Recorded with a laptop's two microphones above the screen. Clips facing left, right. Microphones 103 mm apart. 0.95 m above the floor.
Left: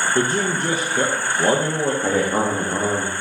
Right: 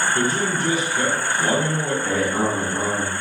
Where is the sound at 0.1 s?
45° left (ahead or behind), 0.6 m.